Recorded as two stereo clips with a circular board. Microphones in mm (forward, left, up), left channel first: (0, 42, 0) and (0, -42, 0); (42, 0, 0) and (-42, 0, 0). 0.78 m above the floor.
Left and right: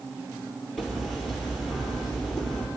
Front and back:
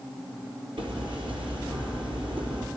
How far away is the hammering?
About 4.5 m.